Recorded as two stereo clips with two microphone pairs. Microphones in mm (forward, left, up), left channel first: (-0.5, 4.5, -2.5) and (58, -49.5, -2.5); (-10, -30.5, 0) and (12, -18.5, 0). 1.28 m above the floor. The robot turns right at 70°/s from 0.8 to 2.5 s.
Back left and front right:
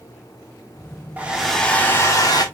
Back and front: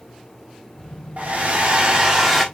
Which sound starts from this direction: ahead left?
A hair dryer, at 1.2 s.